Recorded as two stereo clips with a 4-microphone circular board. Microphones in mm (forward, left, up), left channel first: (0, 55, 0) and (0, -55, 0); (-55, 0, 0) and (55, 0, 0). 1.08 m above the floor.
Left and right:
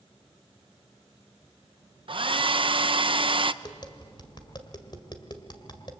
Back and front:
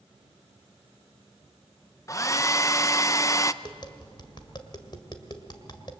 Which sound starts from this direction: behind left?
Tapping, at 3.6 s.